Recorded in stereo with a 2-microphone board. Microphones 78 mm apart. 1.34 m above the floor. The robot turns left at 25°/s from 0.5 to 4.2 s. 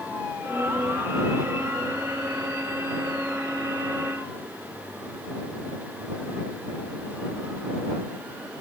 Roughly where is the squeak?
No squeak in this recording.